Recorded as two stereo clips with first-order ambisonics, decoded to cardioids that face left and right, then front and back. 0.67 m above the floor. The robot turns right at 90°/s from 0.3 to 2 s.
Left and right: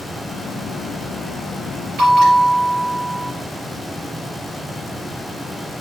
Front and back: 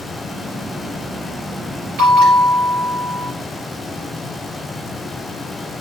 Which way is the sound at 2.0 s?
140° right.